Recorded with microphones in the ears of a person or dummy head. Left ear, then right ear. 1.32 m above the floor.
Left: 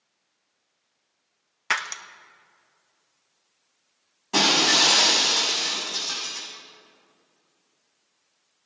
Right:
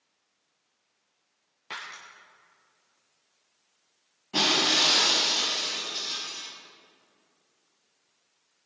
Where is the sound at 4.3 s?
60° left (ahead or behind), 6 m.